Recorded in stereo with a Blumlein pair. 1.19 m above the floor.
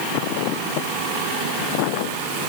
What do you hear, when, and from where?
Only background noise.